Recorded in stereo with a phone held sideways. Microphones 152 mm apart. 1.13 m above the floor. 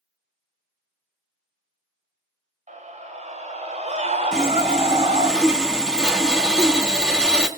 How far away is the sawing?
About 2.5 m.